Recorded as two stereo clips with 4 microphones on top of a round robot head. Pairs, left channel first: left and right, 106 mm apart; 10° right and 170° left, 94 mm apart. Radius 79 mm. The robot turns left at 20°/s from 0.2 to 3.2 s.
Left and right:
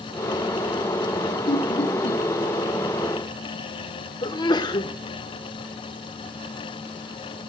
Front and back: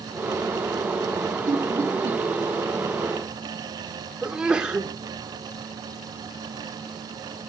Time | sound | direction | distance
1.5 | laughter | 120° left | 3.5 m
4.2 | a sneeze | 95° left | 1.4 m